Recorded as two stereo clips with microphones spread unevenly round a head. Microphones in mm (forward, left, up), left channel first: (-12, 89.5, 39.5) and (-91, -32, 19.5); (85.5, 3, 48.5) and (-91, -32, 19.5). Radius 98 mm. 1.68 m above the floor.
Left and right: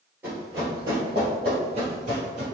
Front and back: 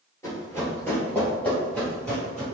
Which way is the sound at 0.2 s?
40° right.